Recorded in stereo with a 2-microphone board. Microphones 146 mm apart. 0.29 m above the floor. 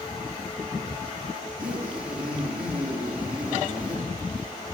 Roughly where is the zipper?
Centre.